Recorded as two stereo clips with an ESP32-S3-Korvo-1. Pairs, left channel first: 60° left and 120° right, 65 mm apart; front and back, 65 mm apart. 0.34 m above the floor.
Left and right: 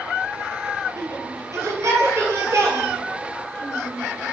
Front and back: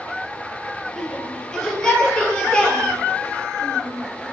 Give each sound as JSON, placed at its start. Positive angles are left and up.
{"t": 1.0, "sound": "a shout", "azimuth_deg": -85, "distance_m": 7.5}